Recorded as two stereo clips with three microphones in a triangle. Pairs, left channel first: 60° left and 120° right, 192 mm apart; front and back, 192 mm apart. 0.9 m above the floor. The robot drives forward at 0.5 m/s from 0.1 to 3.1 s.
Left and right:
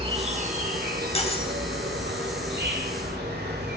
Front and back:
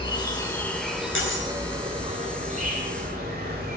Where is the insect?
60° right, 0.9 m; by 3.8 s 145° right, 1.4 m.